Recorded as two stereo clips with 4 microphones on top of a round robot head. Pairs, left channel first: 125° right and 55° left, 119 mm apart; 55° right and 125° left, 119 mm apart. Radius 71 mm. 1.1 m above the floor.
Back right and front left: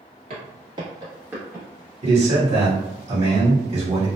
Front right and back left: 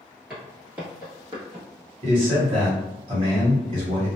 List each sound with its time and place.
0.3 s footsteps: 50° left, 1.3 m; by 1.6 s 130° left, 1.1 m
2.0 s a man speaking: 90° left, 1.3 m